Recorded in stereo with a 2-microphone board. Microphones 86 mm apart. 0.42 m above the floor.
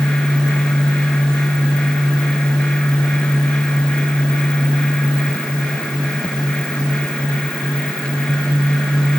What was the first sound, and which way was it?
Only background noise.